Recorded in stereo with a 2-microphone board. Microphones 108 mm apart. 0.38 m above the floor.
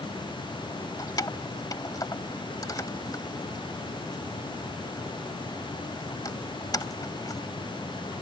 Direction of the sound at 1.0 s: 35° left (ahead or behind).